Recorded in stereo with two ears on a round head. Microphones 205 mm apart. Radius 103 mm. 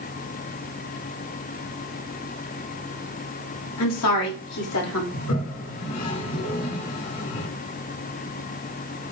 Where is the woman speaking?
80° left, 3 m; by 5.0 s 70° left (ahead or behind), 3 m.